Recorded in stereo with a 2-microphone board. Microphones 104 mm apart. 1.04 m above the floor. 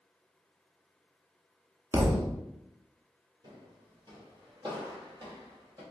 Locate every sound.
1.9 s a thud: 25° right (ahead or behind), 0.5 m
3.4 s footsteps: 50° right (ahead or behind), 1.5 m; by 5.8 s 45° right (ahead or behind), 2.0 m